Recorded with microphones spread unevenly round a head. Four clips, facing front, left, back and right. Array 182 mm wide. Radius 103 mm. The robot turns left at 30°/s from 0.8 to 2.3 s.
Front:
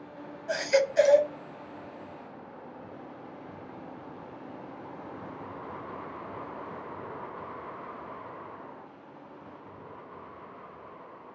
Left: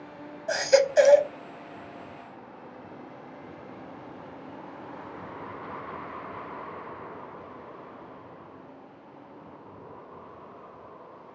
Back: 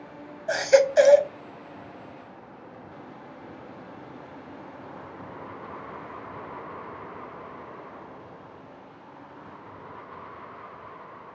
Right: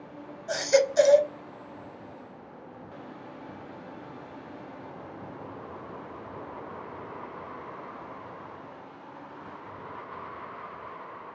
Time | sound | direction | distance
0.5 | a baby crying | 155° left | 0.7 m